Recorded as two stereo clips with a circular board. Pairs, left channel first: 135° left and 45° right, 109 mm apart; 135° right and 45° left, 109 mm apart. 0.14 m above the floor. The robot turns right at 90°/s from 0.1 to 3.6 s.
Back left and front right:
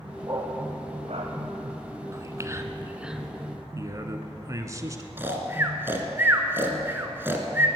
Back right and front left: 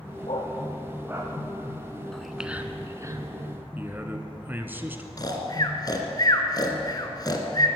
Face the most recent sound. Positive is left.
turn(degrees=-105)